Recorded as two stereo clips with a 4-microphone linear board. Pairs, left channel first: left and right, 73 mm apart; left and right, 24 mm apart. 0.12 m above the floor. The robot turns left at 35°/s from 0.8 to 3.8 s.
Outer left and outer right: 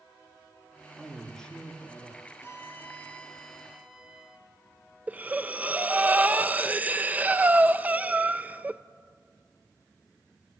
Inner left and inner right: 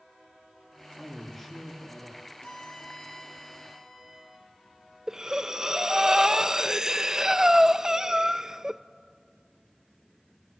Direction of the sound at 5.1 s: 20° right (ahead or behind).